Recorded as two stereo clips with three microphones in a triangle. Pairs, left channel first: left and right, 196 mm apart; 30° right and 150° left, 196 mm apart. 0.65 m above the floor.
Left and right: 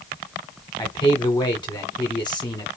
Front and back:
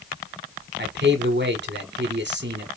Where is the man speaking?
155° left, 1.4 m.